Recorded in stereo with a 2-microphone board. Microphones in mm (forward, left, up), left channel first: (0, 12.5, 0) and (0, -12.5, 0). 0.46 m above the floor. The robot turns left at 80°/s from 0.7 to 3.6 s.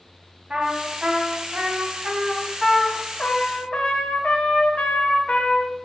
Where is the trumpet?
35° right, 1.6 m; by 5.7 s 95° left, 1.6 m.